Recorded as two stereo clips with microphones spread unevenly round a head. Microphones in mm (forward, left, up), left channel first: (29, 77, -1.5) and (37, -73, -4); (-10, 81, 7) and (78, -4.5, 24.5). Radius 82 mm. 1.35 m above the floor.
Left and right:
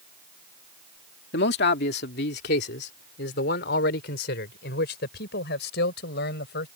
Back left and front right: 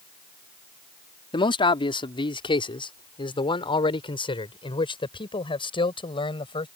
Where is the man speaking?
85° left.